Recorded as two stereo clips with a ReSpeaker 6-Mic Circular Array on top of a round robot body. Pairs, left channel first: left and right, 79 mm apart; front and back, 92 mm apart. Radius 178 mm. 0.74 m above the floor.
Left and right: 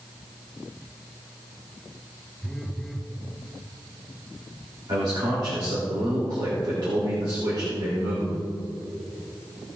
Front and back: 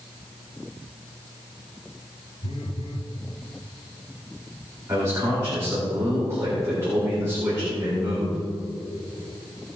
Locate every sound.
2.4 s a phone buzzing: straight ahead, 4 m
4.9 s a man speaking: 120° right, 3.5 m